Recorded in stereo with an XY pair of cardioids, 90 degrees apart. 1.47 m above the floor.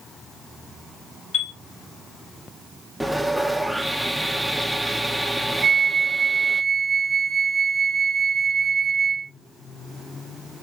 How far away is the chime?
About 0.9 m.